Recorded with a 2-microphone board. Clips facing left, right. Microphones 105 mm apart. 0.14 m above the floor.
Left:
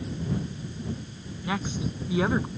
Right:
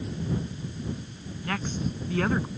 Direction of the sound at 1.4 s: 10° left (ahead or behind).